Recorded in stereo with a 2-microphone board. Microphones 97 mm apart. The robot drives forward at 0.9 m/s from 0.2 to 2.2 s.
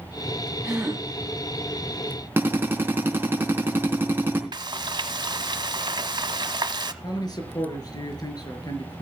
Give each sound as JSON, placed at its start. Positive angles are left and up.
{"t": 0.6, "sound": "a gasp", "side_deg": -15, "distance_m": 7.0}
{"t": 2.4, "sound": "a drill", "side_deg": -20, "distance_m": 3.5}
{"t": 4.5, "sound": "frying", "side_deg": -50, "distance_m": 1.0}
{"t": 7.0, "sound": "a man speaking", "side_deg": 45, "distance_m": 4.5}